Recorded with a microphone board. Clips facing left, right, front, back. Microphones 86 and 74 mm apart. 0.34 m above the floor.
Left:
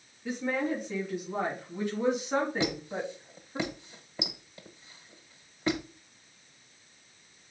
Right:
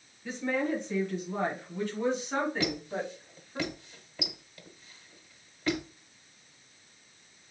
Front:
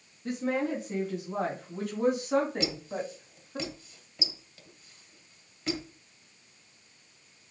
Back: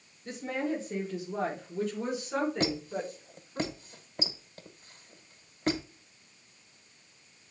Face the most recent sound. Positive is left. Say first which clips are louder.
# left 1 dB, back 2 dB
turn(degrees=150)